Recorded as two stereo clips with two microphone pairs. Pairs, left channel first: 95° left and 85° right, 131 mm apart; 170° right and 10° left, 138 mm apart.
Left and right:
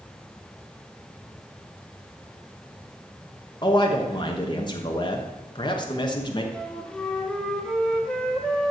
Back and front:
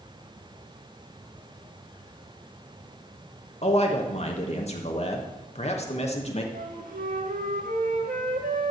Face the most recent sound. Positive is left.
turn(degrees=5)